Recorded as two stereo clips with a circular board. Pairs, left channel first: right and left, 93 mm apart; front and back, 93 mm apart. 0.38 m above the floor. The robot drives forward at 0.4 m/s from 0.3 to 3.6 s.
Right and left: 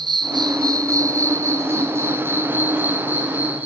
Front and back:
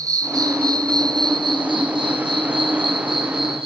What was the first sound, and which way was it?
An insect, 130° left.